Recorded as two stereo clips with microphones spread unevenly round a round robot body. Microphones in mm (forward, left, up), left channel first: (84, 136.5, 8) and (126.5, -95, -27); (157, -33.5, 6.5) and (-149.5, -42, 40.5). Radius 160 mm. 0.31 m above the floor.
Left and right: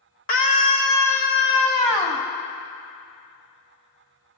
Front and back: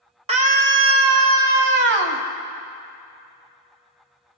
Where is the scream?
120° left, 0.9 m; by 2.2 s 175° right, 1.6 m.